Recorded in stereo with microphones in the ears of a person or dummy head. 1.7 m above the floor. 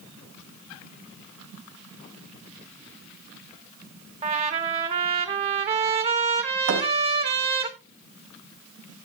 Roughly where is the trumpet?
Right.